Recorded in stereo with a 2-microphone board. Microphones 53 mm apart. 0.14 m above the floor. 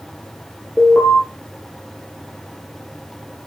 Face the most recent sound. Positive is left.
turn(degrees=-5)  # may be behind; listen again after turning